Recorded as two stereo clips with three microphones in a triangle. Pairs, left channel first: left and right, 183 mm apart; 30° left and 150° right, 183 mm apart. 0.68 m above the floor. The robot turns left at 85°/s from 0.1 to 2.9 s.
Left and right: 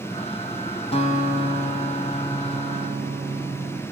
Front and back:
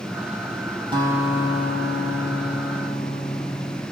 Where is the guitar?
145° left, 3.5 m; by 3.8 s 20° right, 3.5 m.